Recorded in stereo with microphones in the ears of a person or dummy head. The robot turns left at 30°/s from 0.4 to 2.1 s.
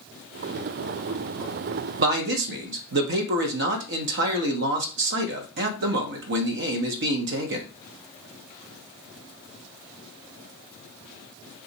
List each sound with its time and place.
2.0 s a man speaking: 65° right (ahead or behind), 0.8 m; by 7.7 s 60° right (ahead or behind), 0.8 m